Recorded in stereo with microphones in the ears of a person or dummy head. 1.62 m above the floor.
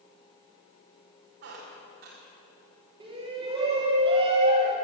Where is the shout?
25° right (ahead or behind), 2 m.